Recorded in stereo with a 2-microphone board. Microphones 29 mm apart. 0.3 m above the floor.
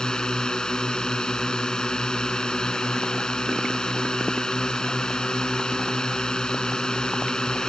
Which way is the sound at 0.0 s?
30° left (ahead or behind).